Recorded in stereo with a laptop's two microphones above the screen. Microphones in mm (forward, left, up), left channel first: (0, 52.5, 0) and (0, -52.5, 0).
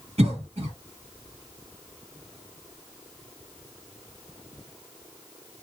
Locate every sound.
0.2 s a cough: 70° right (ahead or behind), 1.6 m